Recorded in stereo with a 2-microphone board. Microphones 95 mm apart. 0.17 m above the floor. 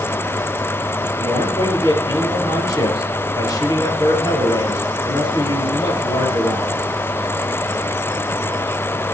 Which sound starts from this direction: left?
A man speaking, at 1.2 s.